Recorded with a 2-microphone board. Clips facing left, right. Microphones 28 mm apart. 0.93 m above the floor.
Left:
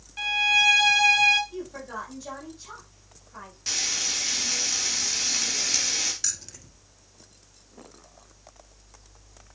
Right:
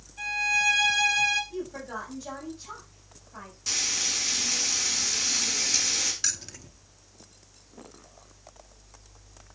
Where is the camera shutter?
No camera shutter in this recording.